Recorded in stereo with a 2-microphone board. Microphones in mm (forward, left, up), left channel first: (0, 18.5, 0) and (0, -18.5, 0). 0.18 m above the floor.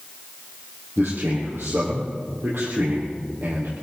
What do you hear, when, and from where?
1.0 s a man speaking: 75° right (ahead or behind), 4.5 m